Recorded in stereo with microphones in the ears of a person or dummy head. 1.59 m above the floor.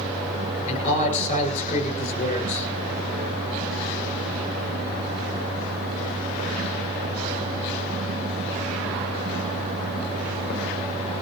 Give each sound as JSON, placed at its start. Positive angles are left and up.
{"t": 0.7, "sound": "a man speaking", "side_deg": 35, "distance_m": 7.0}